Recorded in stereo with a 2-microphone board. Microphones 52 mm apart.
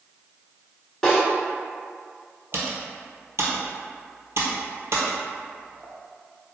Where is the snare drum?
10° left (ahead or behind), 1.3 m.